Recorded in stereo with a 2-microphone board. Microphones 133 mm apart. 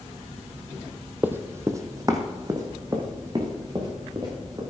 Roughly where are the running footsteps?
Centre.